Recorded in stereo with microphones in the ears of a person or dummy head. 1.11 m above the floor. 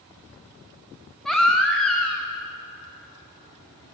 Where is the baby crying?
5° right (ahead or behind), 0.5 m.